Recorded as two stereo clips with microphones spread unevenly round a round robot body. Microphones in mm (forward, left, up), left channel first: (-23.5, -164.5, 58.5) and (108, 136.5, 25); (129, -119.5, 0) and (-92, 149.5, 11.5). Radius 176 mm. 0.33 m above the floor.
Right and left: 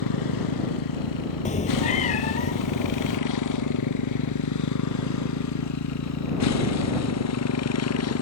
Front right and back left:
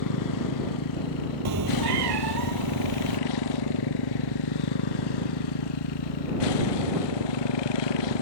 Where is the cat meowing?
175° left.